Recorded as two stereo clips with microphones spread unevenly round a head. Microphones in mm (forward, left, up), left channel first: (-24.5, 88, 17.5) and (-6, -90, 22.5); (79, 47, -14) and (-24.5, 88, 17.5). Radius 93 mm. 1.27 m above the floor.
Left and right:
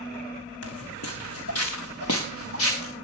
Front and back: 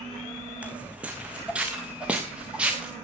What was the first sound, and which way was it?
Footsteps, 90° left.